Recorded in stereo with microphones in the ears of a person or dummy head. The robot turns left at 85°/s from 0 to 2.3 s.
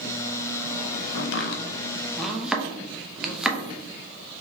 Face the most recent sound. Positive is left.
turn(degrees=0)  # may be behind; listen again after turning